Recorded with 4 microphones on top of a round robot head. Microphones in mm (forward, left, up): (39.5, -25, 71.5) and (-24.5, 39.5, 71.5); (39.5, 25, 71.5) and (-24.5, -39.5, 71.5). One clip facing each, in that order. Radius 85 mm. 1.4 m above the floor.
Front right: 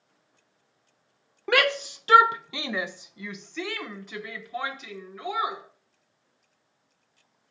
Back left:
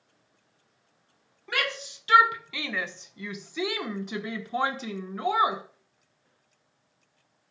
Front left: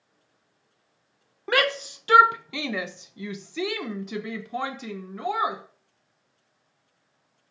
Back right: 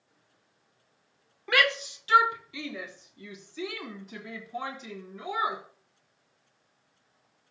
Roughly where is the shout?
Ahead.